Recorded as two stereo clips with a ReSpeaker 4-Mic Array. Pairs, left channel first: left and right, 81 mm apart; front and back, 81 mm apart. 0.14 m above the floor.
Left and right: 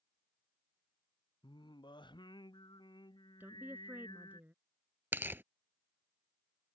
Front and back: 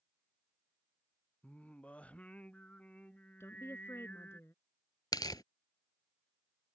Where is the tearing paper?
30° right.